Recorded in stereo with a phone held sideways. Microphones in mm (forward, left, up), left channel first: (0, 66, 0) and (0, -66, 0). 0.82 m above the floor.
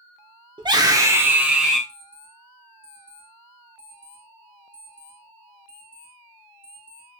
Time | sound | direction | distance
0.6 | a scream | 35° right (ahead or behind) | 0.8 m
1.9 | an alarm clock | 85° left | 2 m